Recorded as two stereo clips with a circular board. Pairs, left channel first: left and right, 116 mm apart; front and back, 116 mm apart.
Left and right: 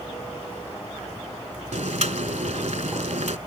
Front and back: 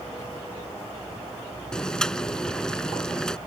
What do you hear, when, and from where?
1.7 s boiling: 85° right